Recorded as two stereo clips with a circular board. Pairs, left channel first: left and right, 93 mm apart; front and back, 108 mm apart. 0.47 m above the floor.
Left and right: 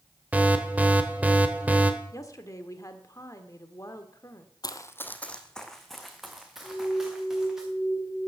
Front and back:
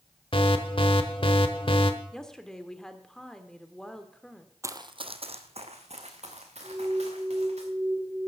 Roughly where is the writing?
No writing in this recording.